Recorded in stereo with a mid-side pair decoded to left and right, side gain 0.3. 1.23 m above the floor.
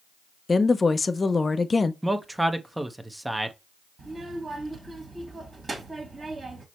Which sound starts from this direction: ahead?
A man speaking, at 2.0 s.